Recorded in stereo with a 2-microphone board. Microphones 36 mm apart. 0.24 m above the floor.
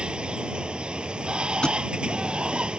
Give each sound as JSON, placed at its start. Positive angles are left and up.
{"t": 0.0, "sound": "running water", "side_deg": -25}
{"t": 1.6, "sound": "a thud", "side_deg": 25}